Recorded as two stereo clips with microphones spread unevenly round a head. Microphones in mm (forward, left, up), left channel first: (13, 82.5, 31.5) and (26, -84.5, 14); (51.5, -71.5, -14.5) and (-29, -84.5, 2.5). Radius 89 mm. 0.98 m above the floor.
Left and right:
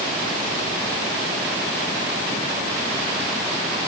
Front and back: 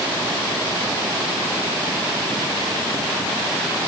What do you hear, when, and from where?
Only background noise.